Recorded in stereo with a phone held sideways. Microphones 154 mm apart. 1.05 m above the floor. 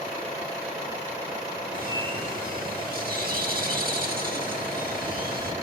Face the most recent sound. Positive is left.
turn(degrees=-70)  # may be behind; listen again after turning